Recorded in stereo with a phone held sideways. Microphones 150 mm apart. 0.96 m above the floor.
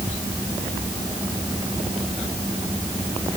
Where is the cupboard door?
No cupboard door in this recording.